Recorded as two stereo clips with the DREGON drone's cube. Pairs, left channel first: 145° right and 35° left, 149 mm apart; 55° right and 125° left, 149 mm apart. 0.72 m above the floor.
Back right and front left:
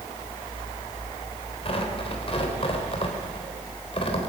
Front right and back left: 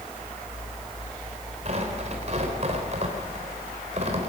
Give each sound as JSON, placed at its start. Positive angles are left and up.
{"t": 1.6, "sound": "tearing paper", "azimuth_deg": 165, "distance_m": 3.5}